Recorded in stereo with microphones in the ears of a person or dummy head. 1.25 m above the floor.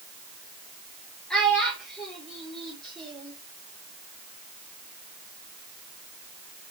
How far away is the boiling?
No boiling in this recording.